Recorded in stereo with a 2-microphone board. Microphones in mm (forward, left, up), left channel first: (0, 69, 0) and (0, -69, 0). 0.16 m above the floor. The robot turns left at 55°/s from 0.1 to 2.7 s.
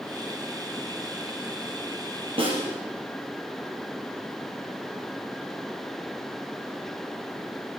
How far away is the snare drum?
About 4 m.